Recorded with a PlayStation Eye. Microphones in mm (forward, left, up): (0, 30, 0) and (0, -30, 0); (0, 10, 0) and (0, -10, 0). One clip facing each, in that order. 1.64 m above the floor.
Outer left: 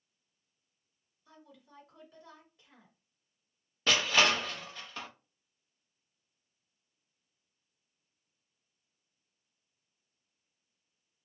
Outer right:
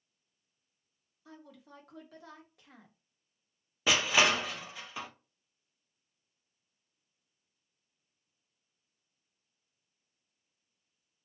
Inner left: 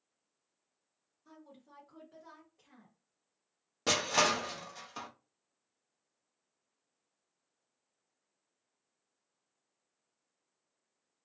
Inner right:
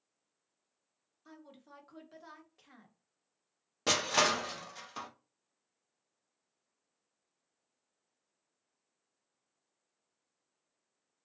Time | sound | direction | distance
1.2 | a woman speaking | 75° right (ahead or behind) | 0.9 m
3.9 | crushing | 10° right (ahead or behind) | 0.5 m